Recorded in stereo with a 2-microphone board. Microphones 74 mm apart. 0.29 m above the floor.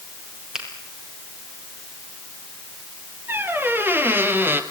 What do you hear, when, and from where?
0.5 s a finger snap: 5° right (ahead or behind), 6.5 m
3.3 s a squeak: 25° right (ahead or behind), 1.9 m